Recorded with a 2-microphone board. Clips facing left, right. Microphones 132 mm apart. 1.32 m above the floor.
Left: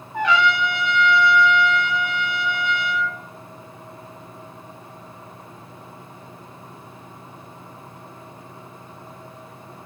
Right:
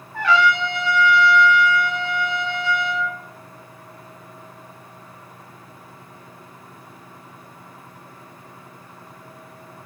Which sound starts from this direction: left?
A trumpet, at 0.1 s.